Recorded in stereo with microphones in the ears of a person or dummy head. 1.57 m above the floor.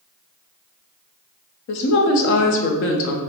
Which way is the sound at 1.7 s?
60° left (ahead or behind).